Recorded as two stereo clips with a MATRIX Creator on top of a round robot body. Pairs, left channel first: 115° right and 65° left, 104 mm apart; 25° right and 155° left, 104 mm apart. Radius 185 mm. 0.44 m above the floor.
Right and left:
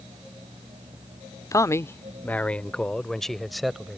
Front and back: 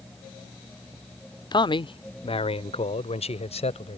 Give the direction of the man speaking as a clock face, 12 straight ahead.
2 o'clock.